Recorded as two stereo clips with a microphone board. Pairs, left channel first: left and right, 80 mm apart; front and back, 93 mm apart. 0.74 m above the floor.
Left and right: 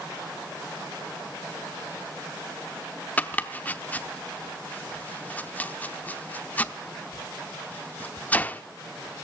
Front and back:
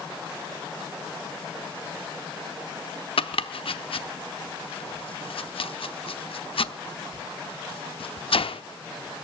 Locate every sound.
3.2 s chopping: 20° left, 0.7 m